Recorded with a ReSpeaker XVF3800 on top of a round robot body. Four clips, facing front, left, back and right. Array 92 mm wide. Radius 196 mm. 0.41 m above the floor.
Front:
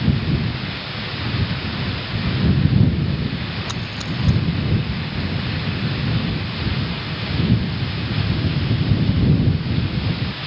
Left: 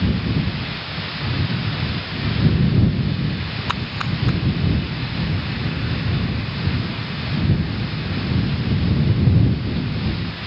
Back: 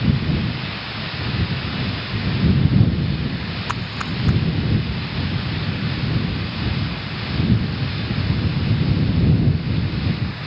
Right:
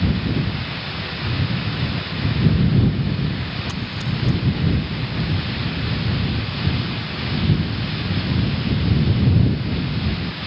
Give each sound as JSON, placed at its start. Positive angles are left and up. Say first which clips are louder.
{"t": 3.7, "sound": "a splash", "louder": "left 2 dB, back 2 dB", "azimuth_deg": 125}